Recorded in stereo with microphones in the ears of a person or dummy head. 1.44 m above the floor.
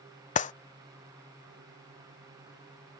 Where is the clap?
30° left (ahead or behind).